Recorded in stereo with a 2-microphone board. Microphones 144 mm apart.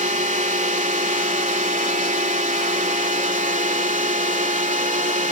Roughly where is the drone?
Right.